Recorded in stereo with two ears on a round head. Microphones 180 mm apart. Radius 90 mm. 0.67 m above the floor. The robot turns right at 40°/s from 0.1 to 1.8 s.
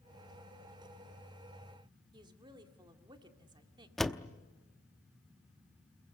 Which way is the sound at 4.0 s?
Centre (ahead or behind).